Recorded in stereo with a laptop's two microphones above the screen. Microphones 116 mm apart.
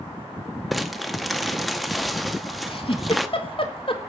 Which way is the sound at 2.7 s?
50° left (ahead or behind).